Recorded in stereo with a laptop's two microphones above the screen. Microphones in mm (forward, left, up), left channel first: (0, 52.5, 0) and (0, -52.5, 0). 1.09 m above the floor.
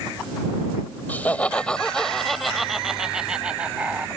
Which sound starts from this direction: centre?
Laughter, at 1.1 s.